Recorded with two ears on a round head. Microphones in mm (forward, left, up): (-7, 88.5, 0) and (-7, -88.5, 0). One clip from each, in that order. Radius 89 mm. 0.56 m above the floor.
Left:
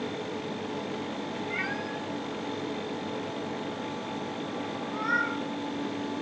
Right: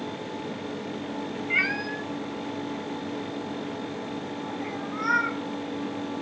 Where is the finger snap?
No finger snap in this recording.